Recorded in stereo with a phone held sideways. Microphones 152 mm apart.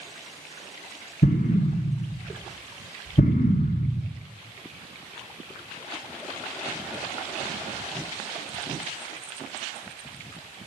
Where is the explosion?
65° left (ahead or behind), 1.6 m.